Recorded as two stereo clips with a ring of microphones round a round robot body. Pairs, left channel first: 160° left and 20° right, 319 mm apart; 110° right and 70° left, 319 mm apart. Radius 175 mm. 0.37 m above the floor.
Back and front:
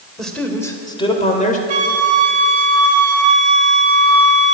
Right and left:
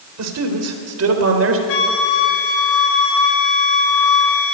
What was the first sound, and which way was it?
A man speaking, 70° left.